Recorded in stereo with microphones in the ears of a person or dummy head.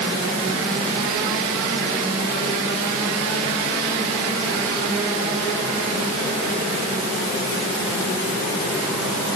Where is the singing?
No singing in this recording.